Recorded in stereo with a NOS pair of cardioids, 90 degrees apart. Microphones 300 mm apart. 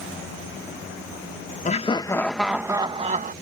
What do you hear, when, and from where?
1.6 s laughter: 25° left; by 3.3 s 30° right